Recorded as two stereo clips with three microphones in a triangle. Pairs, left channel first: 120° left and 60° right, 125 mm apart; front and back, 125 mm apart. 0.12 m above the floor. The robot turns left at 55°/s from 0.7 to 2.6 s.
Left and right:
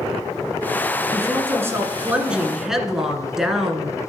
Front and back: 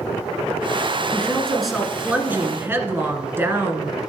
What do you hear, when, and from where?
1.1 s a woman speaking: 60° right, 1.3 m; by 4.0 s 140° right, 1.3 m